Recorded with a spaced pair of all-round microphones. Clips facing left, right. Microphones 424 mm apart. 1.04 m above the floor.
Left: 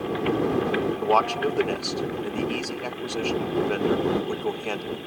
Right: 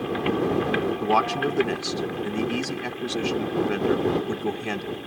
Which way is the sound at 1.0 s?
35° right (ahead or behind).